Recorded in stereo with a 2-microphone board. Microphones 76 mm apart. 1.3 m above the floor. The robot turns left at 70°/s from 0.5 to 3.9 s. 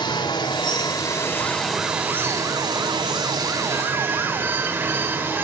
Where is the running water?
90° left, 2.5 m; by 5.5 s 150° right, 2.5 m.